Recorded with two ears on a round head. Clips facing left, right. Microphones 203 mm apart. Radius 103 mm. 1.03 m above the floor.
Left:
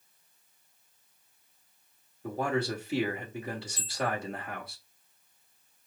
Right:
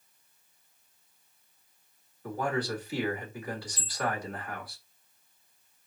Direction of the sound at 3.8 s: 5° right (ahead or behind).